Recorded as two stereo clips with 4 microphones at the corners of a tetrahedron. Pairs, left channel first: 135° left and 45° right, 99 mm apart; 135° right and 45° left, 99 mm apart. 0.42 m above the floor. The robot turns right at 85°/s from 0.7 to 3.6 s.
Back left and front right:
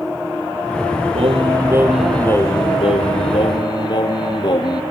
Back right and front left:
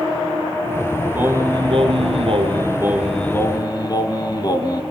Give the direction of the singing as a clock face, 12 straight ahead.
1 o'clock.